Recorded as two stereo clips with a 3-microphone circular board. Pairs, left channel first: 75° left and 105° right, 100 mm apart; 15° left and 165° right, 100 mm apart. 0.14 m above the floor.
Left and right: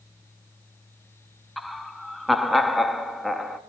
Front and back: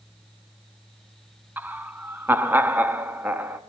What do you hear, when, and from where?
1.6 s laughter: 170° left, 1.1 m